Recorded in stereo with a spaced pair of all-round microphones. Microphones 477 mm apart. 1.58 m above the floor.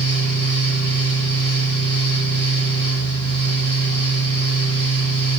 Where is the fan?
50° right (ahead or behind), 3 m.